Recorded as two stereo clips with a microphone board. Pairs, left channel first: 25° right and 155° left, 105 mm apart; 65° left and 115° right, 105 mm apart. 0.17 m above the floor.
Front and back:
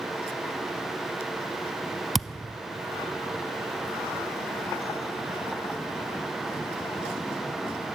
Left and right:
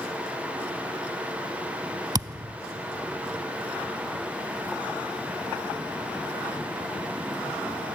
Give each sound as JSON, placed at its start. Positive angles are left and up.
{"t": 2.1, "sound": "a thud", "azimuth_deg": -115, "distance_m": 0.6}